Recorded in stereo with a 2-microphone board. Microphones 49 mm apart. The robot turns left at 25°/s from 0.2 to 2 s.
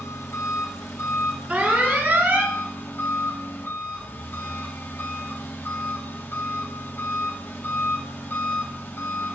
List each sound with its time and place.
0.0 s an engine running: 95° left, 2 m; by 9.3 s 50° left, 2 m
1.5 s an alarm: 35° right (ahead or behind), 3 m; by 2.6 s 45° right (ahead or behind), 3 m